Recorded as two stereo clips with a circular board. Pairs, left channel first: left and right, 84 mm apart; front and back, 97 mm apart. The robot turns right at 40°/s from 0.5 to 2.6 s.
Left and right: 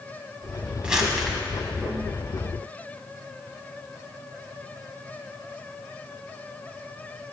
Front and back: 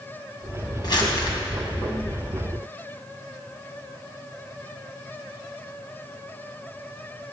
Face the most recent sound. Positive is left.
turn(degrees=55)